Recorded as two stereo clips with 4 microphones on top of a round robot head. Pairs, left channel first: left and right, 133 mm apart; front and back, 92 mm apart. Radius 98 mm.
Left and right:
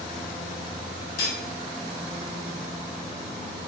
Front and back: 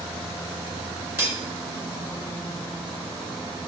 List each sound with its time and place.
1.2 s cutlery clinking: 115° left, 1.0 m